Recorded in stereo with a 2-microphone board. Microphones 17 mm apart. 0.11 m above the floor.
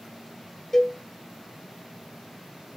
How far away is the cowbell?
About 0.5 m.